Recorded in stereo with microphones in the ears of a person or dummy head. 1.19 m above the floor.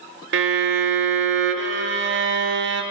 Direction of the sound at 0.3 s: 60° right (ahead or behind).